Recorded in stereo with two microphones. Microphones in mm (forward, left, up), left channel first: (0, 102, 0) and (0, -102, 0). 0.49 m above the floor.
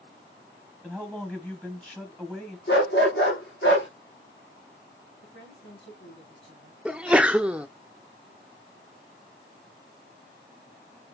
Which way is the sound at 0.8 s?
5° left (ahead or behind).